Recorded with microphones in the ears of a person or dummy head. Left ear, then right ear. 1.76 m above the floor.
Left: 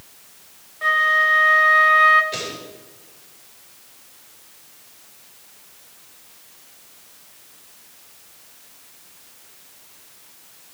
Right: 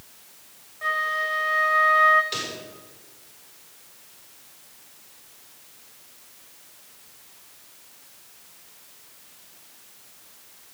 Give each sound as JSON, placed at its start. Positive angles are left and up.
{"t": 0.8, "sound": "a flute", "side_deg": 15, "distance_m": 0.7}
{"t": 2.3, "sound": "a pop", "side_deg": -35, "distance_m": 5.0}